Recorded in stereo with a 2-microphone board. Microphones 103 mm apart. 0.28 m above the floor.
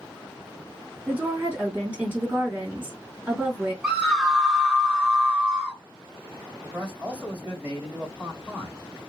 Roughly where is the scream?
Centre.